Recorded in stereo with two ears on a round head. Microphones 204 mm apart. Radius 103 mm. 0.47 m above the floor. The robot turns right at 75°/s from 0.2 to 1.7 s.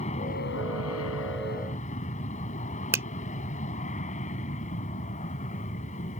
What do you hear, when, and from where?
0.0 s an aircraft: 30° left; by 6.2 s 145° left
2.9 s a finger snap: 10° right (ahead or behind)